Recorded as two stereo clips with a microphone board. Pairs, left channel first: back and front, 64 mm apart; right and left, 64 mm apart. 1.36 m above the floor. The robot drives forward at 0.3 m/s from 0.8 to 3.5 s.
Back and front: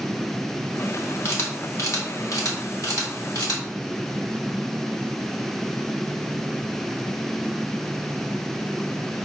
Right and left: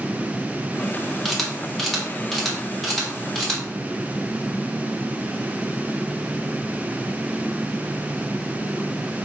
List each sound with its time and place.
1.2 s a camera shutter: 175° right, 0.8 m; by 3.6 s straight behind, 1.3 m